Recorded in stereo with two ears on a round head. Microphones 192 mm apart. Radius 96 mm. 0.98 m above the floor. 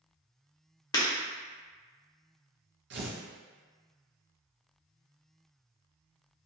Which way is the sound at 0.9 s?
20° left (ahead or behind).